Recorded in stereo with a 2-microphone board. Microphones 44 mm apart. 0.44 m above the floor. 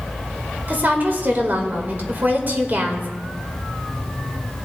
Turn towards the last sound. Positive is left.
turn(degrees=-45)  # may be behind; listen again after turning